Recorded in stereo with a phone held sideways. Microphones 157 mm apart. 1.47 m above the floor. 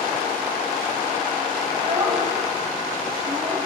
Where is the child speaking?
45° right (ahead or behind), 7 m.